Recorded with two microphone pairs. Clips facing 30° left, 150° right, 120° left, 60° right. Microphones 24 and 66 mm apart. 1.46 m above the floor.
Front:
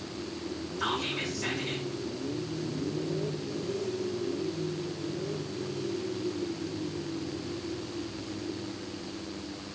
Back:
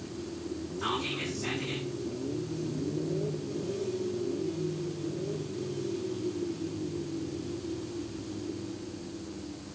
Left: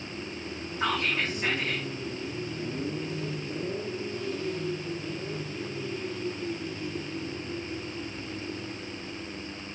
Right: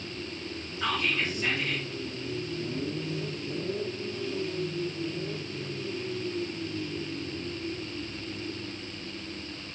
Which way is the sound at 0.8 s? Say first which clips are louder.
Front 1 dB, left 1 dB; 65° left.